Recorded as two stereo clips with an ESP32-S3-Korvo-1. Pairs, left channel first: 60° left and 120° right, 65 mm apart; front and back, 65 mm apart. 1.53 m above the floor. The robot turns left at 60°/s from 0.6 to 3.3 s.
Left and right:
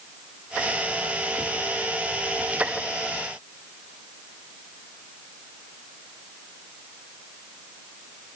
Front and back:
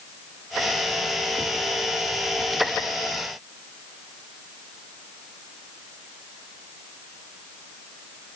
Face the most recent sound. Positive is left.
No sound to turn to.